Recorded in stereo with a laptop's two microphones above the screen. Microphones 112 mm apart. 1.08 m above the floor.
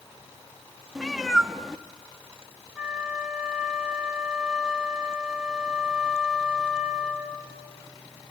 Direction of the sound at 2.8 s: 5° right (ahead or behind).